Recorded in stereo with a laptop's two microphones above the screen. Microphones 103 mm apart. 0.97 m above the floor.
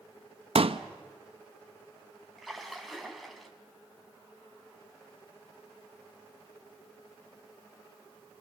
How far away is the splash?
About 2.5 m.